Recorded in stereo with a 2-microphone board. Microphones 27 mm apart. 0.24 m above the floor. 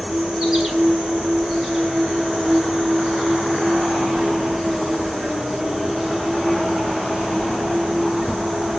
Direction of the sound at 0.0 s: 15° right (ahead or behind).